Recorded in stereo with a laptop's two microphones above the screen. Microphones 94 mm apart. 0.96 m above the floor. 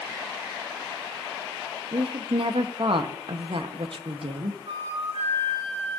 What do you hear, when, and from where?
1.9 s a woman speaking: 65° right (ahead or behind), 0.8 m
4.7 s a flute: 80° right, 3.5 m